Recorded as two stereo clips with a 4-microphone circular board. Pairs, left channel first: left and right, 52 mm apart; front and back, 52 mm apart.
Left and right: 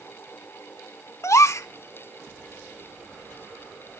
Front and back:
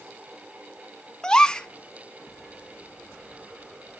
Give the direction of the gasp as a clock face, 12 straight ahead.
10 o'clock.